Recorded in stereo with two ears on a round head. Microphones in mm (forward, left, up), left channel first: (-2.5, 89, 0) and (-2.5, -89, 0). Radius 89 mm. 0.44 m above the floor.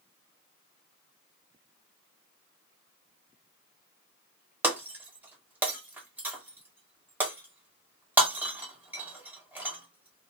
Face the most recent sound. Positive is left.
turn(degrees=-10)  # may be behind; listen again after turning